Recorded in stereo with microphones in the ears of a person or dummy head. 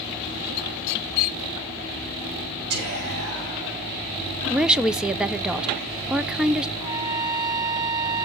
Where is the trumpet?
20° right (ahead or behind), 1.5 m.